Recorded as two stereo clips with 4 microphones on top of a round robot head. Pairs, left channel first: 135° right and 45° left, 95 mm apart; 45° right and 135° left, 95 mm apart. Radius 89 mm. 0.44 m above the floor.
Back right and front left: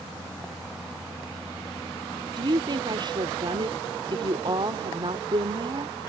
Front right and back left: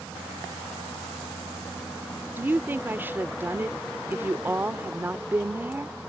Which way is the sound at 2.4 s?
70° left.